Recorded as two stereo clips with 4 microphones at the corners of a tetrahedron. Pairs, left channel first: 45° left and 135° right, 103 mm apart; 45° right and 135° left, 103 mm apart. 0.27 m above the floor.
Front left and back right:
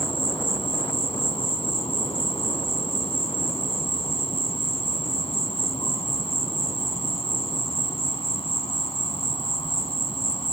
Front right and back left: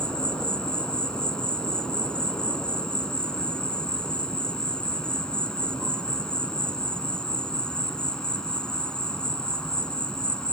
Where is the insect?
35° left, 1.4 m.